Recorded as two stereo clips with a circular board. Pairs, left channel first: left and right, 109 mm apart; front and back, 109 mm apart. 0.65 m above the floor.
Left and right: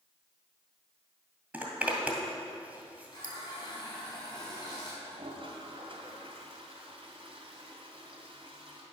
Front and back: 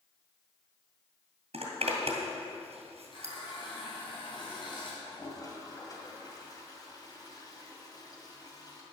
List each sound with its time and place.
1.5 s a zipper: 170° right, 2.0 m
3.1 s a running tap: 40° left, 3.5 m
5.0 s a toilet flushing: 55° right, 1.9 m